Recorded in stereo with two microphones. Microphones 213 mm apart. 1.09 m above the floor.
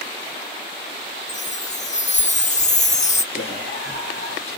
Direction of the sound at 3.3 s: 85° left.